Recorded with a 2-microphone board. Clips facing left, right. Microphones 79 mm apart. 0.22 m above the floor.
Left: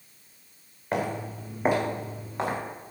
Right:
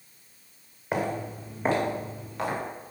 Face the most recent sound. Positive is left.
turn(degrees=30)  # may be behind; listen again after turning